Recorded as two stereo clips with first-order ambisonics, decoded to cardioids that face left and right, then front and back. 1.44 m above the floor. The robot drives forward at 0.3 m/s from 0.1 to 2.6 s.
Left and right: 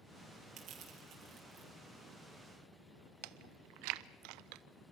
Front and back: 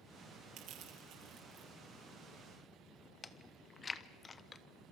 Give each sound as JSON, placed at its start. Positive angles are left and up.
{"t": 0.6, "sound": "crushing", "azimuth_deg": -140, "distance_m": 5.5}
{"t": 3.2, "sound": "chewing", "azimuth_deg": -75, "distance_m": 0.8}